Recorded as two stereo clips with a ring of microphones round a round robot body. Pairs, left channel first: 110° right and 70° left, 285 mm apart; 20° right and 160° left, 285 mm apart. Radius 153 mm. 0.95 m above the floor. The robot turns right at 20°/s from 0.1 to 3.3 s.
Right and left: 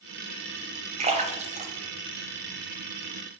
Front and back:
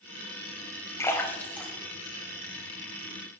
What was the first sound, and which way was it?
A splash, 40° left.